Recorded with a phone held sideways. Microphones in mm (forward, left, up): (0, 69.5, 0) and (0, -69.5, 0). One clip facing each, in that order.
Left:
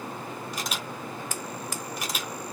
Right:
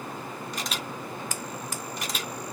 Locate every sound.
0.5 s a camera shutter: 5° left (ahead or behind), 1.0 m